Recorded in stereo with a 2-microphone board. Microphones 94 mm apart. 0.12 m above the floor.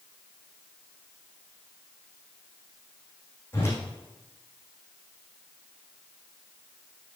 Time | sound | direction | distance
3.5 | a whoosh | 25° left (ahead or behind) | 5.5 m